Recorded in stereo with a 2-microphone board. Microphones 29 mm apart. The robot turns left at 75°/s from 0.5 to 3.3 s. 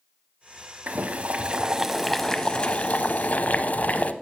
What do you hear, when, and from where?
0.9 s boiling: 90° right, 0.6 m; by 4.1 s 85° left, 0.6 m